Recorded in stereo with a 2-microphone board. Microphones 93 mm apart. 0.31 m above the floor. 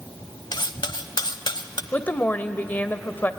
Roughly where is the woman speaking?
Left.